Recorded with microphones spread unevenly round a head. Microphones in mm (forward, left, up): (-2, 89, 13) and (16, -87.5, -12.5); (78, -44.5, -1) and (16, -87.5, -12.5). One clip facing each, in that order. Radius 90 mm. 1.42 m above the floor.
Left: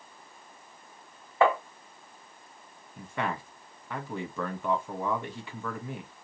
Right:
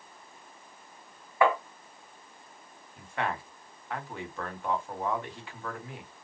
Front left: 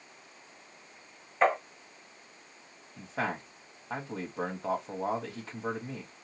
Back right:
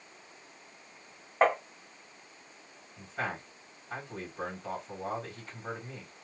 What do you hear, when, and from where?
1.4 s tapping: 155° left, 2.0 m
3.0 s a man speaking: 95° left, 1.1 m